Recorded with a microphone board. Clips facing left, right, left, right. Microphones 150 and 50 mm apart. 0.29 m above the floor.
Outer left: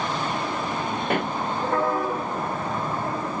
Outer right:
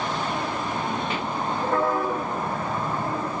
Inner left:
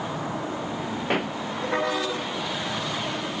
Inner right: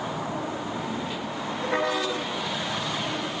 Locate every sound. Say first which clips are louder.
1.1 s a pop: outer left 4 dB, inner left 6 dB; 55° left (ahead or behind)